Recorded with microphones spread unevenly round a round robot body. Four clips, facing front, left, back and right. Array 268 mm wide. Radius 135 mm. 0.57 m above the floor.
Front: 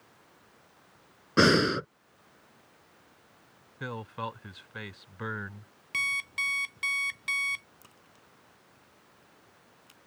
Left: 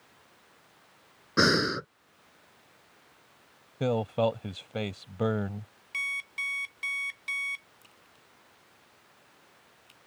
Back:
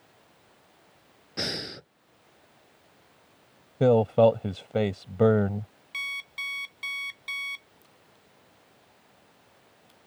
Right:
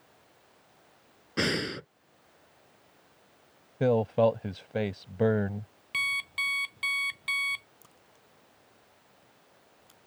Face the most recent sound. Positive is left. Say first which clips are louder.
# even, even
turn(degrees=-15)